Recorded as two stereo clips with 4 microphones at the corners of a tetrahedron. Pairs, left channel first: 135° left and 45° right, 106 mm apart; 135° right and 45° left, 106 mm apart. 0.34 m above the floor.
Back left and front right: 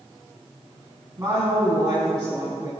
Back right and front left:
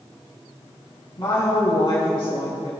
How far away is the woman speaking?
About 1.9 m.